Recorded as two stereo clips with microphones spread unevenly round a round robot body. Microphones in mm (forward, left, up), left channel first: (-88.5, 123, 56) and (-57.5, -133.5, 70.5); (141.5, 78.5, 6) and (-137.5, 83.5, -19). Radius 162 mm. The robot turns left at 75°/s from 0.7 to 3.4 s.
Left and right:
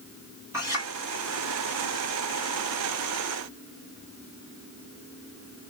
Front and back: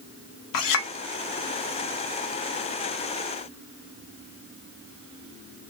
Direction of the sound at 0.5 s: Straight ahead.